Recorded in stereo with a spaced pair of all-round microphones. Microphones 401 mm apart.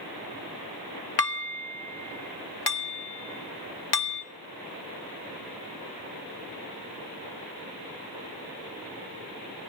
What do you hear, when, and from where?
1.2 s dishes clattering: 70° left (ahead or behind), 1.7 m